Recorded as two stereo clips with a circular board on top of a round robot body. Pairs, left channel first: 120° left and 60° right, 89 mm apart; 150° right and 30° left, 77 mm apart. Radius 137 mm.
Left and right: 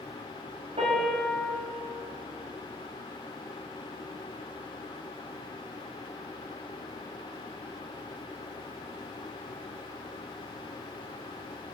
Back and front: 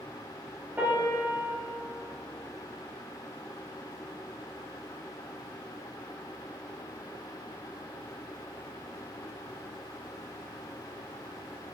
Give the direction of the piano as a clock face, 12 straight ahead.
1 o'clock.